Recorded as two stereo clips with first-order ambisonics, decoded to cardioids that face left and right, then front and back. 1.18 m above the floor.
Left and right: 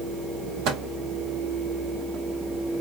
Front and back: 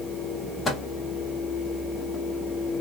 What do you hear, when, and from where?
0.7 s a microwave: 70° right, 1.1 m